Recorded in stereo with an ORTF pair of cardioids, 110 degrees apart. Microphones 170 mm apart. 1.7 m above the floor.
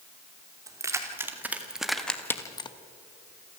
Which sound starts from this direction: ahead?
Keys jangling, at 0.7 s.